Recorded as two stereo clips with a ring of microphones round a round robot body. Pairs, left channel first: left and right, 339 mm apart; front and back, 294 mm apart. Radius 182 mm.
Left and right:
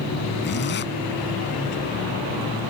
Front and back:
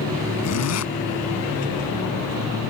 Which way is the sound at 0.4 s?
30° left.